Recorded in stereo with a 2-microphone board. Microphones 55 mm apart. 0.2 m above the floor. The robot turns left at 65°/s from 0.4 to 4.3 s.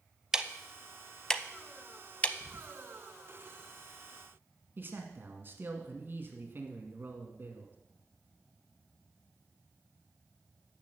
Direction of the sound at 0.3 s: 15° right (ahead or behind).